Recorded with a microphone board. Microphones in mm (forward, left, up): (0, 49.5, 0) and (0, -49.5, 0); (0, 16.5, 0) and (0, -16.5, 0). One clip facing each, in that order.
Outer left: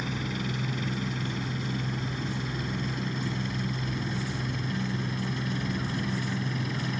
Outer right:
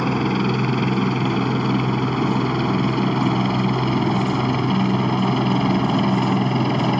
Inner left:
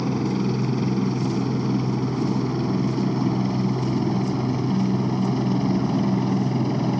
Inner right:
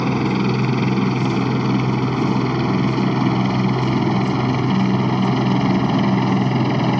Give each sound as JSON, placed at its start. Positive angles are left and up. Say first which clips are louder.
{"t": 0.0, "sound": "a helicopter", "louder": "outer right 13 dB, inner right 5 dB", "side_deg": -60}